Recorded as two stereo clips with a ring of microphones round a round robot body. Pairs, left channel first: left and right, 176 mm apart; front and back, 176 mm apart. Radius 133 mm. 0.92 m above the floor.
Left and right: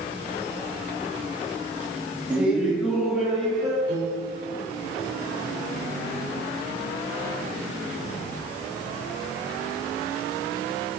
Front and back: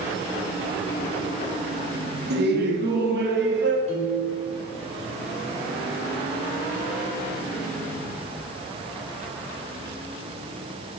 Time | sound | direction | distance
2.3 | laughter | 175° right | 1.4 m
3.9 | a piano | 125° left | 3 m